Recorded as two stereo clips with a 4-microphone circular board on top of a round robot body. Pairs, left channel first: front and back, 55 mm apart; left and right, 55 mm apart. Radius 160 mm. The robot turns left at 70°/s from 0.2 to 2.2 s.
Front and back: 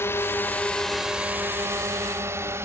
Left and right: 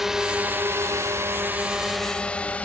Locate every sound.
0.0 s a drone: 10° right; by 2.7 s 150° left